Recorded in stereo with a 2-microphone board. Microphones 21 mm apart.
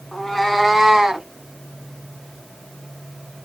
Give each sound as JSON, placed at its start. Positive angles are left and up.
{"t": 0.1, "sound": "a cat meowing", "side_deg": 15, "distance_m": 1.0}